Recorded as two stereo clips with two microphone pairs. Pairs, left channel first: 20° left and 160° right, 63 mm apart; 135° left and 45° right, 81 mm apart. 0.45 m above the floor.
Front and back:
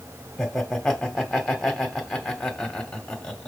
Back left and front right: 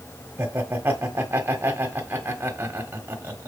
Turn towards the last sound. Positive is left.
turn(degrees=-55)